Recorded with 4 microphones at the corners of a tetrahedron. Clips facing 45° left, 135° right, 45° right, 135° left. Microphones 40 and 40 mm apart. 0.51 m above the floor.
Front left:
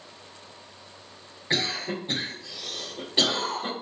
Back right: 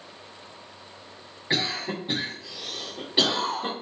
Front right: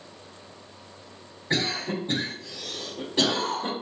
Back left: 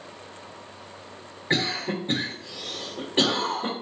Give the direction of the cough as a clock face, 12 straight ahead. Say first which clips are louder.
Even, back left 1 dB; 7 o'clock.